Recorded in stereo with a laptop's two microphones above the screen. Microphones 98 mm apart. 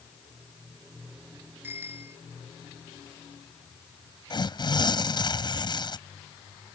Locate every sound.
1.6 s a bicycle bell: 25° right (ahead or behind)
4.3 s tearing paper: 50° left (ahead or behind)